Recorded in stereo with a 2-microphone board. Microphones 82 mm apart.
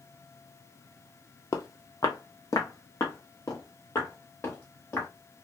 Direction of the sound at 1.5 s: 40° left (ahead or behind).